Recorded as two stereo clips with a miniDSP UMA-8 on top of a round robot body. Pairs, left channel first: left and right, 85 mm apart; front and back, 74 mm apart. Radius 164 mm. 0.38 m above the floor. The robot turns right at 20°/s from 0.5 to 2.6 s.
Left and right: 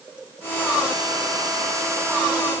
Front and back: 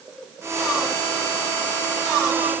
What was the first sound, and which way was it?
Only background noise.